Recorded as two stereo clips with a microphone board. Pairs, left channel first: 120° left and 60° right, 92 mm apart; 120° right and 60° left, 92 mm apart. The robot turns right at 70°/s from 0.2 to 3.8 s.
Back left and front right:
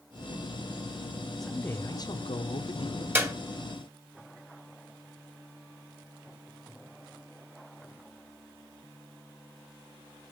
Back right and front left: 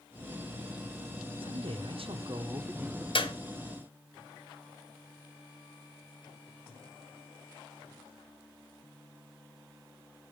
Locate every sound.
1.4 s a man speaking: 35° left, 1.0 m; by 3.0 s 150° left, 1.0 m
3.1 s a clap: 125° right, 1.6 m; by 3.3 s 115° right, 1.6 m